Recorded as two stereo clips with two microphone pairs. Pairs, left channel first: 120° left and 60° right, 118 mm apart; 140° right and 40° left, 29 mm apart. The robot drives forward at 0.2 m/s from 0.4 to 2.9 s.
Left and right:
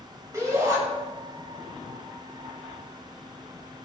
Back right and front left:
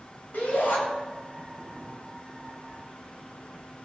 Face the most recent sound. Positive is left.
turn(degrees=-125)